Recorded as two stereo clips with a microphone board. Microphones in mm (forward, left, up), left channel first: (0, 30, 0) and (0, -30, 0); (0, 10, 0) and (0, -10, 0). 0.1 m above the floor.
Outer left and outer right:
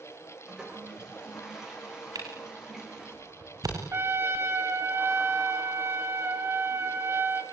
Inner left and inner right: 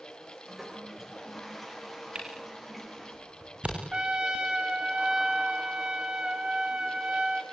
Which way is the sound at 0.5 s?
10° right (ahead or behind).